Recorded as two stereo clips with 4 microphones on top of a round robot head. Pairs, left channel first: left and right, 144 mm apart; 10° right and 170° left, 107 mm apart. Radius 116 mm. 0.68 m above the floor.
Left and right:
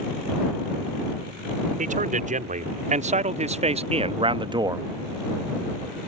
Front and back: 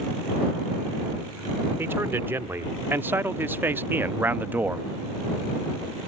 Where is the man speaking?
115° right; by 4.9 s 130° right.